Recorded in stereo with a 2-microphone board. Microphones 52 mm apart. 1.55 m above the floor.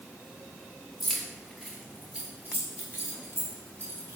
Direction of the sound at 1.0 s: Centre (ahead or behind).